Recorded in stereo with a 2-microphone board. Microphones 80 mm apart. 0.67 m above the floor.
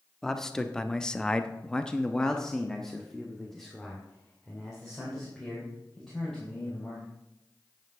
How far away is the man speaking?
About 0.9 m.